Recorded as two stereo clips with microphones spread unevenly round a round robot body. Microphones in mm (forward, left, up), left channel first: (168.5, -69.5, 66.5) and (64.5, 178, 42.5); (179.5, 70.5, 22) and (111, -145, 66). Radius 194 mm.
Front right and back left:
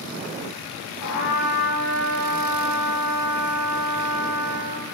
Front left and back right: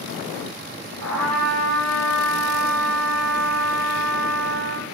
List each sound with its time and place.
1.0 s a trumpet: 120° right, 8 m